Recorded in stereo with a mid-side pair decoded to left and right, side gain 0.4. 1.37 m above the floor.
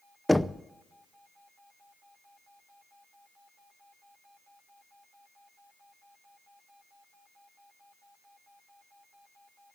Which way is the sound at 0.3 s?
5° left.